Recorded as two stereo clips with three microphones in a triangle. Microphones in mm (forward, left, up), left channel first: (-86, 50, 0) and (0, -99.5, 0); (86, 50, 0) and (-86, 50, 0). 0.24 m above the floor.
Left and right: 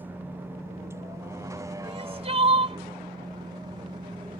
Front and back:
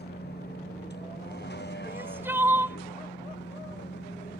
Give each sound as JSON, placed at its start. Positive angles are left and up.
{"t": 0.0, "sound": "a vehicle", "azimuth_deg": 20}
{"t": 1.8, "sound": "crying", "azimuth_deg": -105}